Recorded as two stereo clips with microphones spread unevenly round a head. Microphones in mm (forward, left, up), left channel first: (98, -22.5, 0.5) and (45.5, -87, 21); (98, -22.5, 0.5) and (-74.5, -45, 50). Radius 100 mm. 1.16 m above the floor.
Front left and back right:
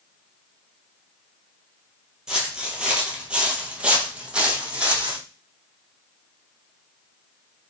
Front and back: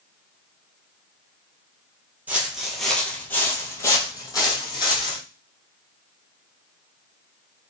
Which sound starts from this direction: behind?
Footsteps, at 2.3 s.